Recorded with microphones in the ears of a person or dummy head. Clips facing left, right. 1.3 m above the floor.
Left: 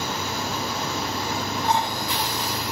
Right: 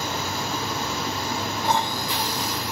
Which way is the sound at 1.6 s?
85° right.